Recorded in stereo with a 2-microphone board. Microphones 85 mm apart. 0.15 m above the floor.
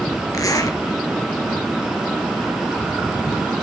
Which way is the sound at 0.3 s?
45° left (ahead or behind).